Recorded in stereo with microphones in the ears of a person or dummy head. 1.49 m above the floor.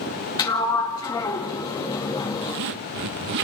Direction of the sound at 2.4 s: 60° right (ahead or behind).